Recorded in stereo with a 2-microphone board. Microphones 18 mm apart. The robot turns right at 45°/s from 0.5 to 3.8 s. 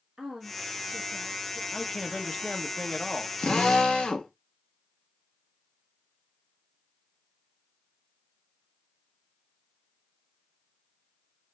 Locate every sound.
0.2 s a woman speaking: 60° right, 1.2 m; by 1.6 s 10° right, 1.2 m
1.7 s a man speaking: 15° left, 0.8 m; by 3.3 s 85° left, 0.8 m
3.4 s a drill: 55° left (ahead or behind), 1.1 m; by 4.3 s 60° left (ahead or behind), 1.1 m